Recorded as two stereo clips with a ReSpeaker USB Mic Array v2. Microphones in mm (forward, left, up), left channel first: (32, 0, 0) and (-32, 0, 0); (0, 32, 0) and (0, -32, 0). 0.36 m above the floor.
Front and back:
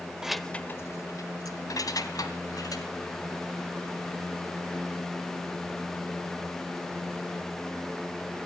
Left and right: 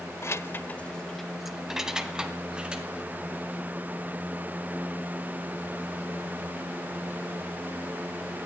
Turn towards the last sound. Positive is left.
turn(degrees=-15)